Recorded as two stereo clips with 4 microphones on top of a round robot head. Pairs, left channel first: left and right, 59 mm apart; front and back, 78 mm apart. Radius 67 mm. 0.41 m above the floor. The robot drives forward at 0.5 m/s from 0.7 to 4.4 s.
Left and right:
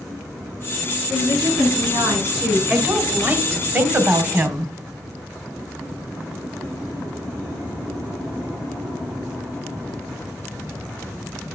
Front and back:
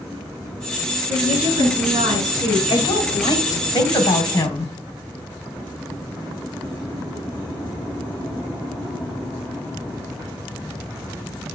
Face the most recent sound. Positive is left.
turn(degrees=-55)